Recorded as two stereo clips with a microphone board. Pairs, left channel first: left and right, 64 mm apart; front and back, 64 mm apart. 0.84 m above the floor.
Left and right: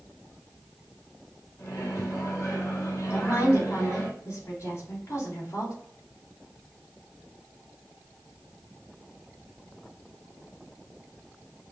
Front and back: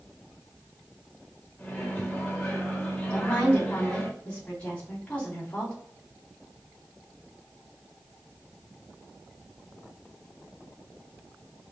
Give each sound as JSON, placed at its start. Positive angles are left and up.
{"t": 1.6, "sound": "a microwave", "azimuth_deg": 65, "distance_m": 1.3}
{"t": 3.1, "sound": "a woman speaking", "azimuth_deg": 60, "distance_m": 2.5}